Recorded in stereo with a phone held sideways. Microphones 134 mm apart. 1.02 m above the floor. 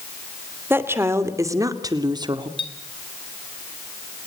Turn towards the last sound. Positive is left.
turn(degrees=40)  # may be behind; listen again after turning